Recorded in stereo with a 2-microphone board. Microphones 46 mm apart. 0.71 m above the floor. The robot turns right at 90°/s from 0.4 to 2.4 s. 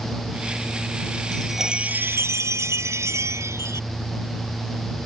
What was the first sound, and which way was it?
A chime, 165° left.